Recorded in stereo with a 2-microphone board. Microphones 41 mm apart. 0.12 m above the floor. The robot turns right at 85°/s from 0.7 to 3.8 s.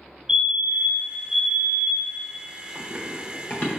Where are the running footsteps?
40° right (ahead or behind), 2 m; by 3.7 s 40° left (ahead or behind), 2 m.